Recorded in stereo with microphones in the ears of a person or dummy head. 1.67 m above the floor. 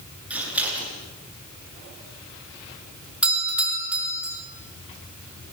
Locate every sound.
0.3 s scissors: 10° right (ahead or behind), 9 m
3.2 s a doorbell: 5° right (ahead or behind), 6.5 m